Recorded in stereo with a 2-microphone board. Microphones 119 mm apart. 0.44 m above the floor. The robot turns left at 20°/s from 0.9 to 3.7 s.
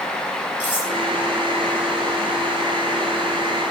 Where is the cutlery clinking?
20° left (ahead or behind), 6 m.